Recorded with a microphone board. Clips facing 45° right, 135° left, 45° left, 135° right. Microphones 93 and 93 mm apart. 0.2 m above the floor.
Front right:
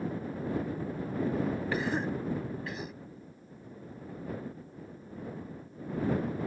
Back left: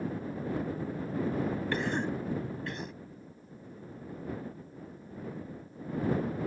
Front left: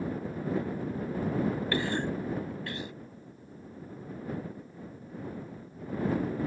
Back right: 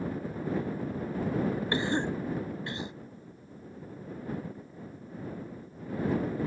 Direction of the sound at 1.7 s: 125° right.